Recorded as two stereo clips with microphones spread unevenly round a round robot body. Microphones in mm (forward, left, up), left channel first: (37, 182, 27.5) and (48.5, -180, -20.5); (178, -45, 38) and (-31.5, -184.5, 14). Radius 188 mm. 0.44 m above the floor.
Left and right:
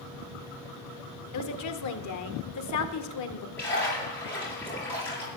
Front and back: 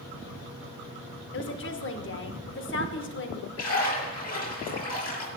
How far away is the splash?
About 7.5 m.